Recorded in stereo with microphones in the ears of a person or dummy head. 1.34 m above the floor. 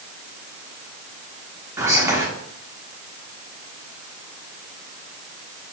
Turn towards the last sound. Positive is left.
turn(degrees=-10)  # may be behind; listen again after turning